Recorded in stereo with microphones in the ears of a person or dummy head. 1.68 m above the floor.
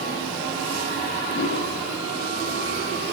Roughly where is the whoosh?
Left.